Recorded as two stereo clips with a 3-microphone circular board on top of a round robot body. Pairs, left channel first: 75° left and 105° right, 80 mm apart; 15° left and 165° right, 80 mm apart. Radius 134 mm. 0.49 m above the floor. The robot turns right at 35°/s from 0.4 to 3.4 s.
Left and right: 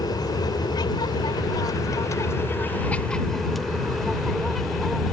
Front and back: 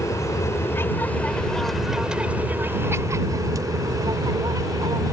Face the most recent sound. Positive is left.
turn(degrees=160)